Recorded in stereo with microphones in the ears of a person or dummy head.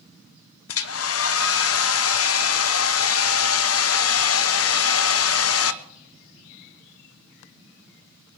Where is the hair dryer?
70° left (ahead or behind), 0.8 m.